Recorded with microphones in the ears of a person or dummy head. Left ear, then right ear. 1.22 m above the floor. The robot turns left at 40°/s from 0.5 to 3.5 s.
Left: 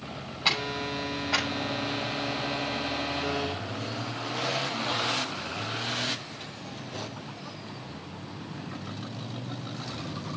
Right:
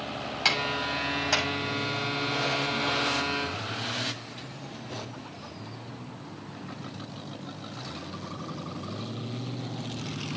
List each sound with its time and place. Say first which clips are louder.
0.5 s a clap: right 1 dB; 65° right (ahead or behind), 8 m; by 1.5 s 75° right (ahead or behind), 8 m